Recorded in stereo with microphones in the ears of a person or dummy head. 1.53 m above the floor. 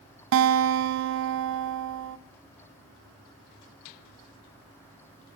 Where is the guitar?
65° right (ahead or behind), 0.8 m.